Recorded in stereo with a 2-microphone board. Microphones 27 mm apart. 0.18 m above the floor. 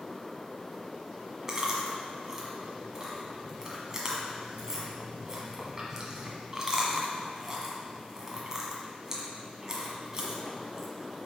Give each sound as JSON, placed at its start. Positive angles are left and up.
{"t": 1.5, "sound": "chewing", "side_deg": -20, "distance_m": 1.4}